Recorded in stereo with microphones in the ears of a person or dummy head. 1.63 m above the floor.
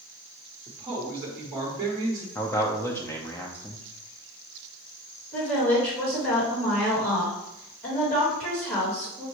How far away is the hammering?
No hammering in this recording.